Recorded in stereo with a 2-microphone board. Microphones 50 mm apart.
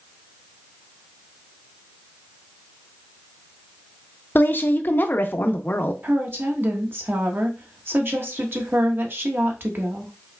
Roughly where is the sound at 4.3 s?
Left.